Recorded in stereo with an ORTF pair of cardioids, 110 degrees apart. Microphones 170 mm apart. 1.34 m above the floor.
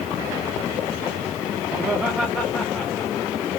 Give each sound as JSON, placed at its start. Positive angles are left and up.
{"t": 1.7, "sound": "laughter", "azimuth_deg": -15, "distance_m": 2.0}